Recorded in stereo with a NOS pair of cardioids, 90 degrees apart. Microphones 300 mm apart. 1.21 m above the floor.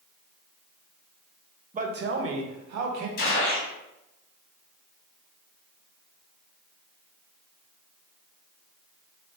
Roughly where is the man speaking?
Ahead right.